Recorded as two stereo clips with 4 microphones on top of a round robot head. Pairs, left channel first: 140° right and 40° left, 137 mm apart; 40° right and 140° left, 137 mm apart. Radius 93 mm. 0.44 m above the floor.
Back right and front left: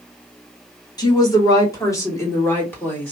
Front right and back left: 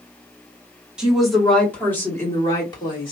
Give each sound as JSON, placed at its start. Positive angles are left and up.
{"t": 1.0, "sound": "a woman speaking", "azimuth_deg": -145, "distance_m": 1.5}